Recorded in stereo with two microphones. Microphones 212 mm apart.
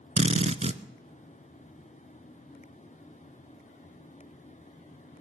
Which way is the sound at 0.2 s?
35° right (ahead or behind).